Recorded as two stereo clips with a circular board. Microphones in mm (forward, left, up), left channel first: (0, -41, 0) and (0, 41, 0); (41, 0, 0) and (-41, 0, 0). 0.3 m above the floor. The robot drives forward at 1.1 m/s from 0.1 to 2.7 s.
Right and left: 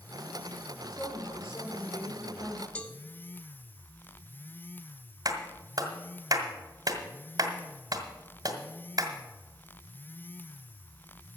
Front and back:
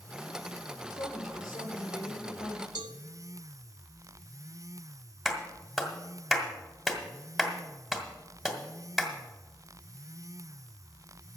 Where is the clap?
95° left, 1.7 m.